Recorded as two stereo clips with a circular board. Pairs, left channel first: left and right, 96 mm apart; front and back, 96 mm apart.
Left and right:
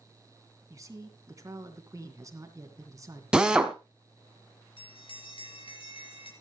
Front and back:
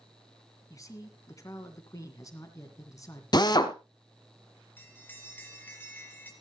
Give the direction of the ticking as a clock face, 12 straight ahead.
No ticking in this recording.